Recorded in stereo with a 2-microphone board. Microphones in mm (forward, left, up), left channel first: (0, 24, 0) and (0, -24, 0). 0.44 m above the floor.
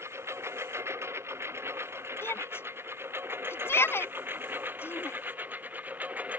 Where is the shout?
65° left (ahead or behind).